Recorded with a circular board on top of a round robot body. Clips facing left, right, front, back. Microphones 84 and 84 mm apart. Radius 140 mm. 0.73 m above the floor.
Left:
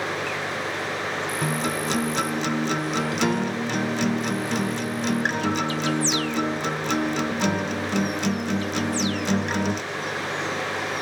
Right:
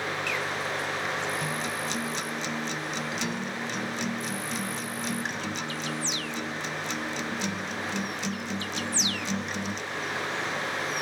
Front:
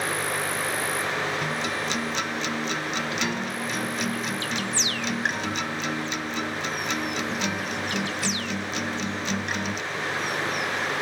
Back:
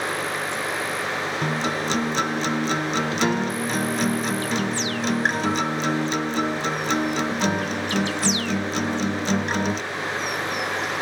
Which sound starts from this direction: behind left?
A guitar, at 1.4 s.